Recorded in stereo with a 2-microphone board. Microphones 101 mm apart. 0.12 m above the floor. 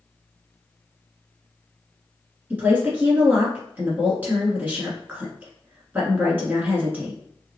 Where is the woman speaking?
20° right (ahead or behind), 1.1 m.